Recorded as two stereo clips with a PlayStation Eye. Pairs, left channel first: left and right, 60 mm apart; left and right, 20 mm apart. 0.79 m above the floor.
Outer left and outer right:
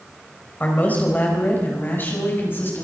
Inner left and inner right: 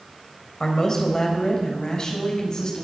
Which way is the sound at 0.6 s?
30° left (ahead or behind).